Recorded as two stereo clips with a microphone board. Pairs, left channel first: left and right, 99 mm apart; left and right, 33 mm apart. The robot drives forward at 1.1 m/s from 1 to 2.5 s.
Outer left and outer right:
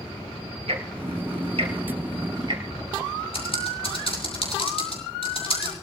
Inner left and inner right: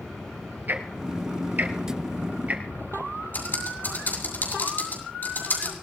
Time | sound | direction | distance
0.7 | ticking | 80° right | 3 m
3.3 | typing on a keyboard | 75° left (ahead or behind) | 6.5 m